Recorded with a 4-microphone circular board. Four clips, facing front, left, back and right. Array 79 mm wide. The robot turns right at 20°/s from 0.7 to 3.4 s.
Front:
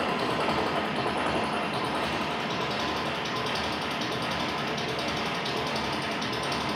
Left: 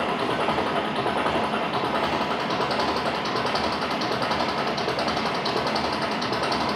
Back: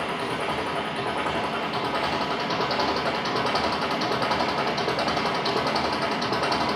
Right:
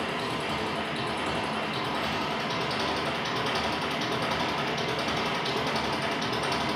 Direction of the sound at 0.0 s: 80° left.